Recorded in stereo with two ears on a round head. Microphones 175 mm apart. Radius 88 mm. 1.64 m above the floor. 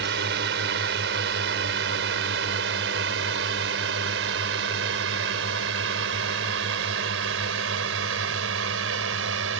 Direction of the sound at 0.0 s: 55° right (ahead or behind).